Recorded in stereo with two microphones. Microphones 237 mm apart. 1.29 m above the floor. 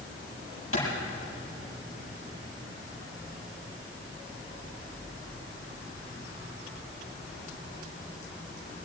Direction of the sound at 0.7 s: 65° left (ahead or behind).